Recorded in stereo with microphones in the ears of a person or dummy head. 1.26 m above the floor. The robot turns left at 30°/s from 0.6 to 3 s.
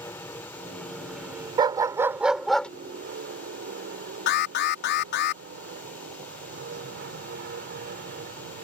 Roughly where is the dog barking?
Behind right.